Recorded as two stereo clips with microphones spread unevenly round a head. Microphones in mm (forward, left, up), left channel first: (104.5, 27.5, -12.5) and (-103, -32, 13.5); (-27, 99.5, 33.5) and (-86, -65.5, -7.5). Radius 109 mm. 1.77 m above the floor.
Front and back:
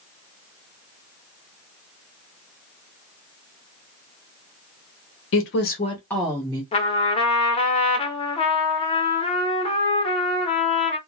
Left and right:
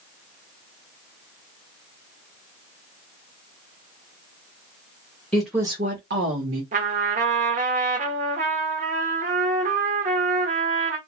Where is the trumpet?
50° right, 0.7 m.